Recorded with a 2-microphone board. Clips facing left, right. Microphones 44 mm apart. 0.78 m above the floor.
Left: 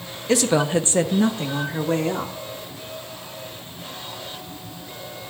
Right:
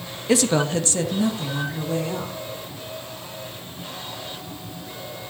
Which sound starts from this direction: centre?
A woman speaking, at 0.3 s.